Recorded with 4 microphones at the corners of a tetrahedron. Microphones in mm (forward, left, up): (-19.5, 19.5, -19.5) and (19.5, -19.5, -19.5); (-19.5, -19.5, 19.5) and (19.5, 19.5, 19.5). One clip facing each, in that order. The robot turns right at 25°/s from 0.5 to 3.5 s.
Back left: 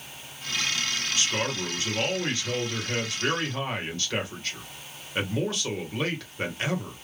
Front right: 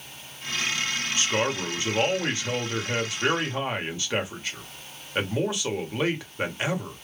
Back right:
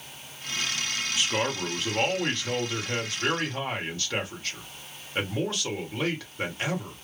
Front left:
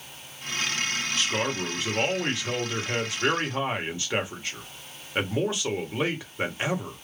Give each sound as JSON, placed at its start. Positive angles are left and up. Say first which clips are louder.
{"t": 1.2, "sound": "a man speaking", "louder": "front right 4 dB, back right 1 dB", "azimuth_deg": -60, "distance_m": 1.2}